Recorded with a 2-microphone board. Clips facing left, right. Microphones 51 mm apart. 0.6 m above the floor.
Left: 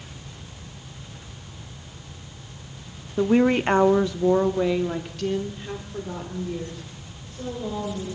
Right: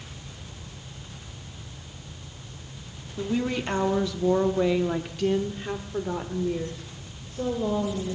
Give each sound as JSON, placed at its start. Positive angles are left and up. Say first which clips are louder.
{"t": 3.2, "sound": "a woman speaking", "louder": "left 8 dB", "side_deg": 50, "distance_m": 0.8}